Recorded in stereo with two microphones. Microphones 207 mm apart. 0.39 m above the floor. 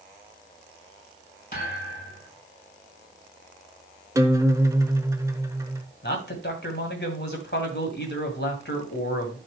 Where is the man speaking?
55° left (ahead or behind), 2.5 m.